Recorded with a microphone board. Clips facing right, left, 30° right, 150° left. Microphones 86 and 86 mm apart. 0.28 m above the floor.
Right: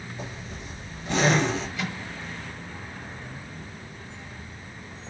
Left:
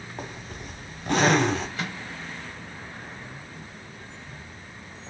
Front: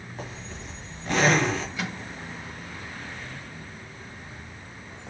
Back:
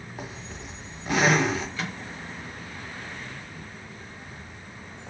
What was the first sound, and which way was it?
A zipper, 70° left.